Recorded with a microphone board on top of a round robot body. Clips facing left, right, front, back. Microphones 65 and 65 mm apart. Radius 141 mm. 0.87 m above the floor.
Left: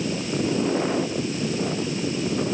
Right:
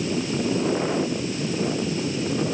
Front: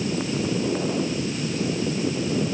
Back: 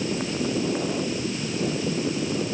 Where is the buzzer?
No buzzer in this recording.